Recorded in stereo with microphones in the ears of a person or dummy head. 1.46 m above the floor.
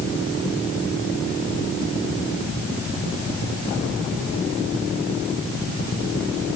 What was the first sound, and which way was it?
Only background noise.